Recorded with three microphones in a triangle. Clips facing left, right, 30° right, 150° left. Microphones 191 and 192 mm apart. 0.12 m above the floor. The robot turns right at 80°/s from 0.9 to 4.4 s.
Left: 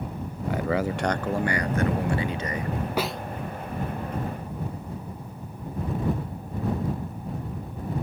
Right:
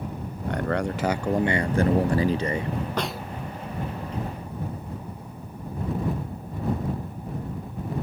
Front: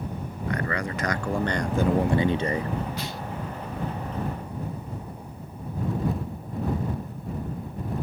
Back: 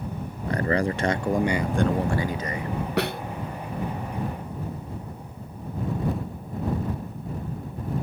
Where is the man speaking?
175° left; by 2.7 s 40° right.